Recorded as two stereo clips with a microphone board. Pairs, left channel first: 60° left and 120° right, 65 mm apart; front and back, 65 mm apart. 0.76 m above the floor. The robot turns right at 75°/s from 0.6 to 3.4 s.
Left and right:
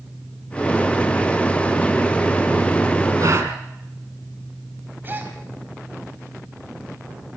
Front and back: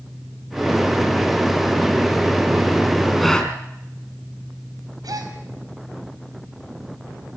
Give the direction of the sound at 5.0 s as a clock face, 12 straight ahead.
6 o'clock.